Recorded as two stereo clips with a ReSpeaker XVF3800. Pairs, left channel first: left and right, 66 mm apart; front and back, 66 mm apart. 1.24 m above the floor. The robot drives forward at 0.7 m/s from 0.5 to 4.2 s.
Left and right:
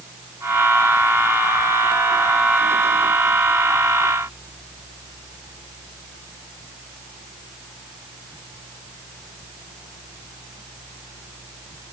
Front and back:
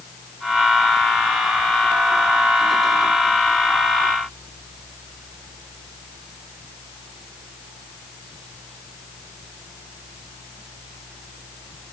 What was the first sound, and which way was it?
Only background noise.